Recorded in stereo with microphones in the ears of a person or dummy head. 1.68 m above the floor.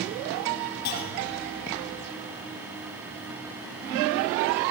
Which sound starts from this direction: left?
A clunk, at 0.8 s.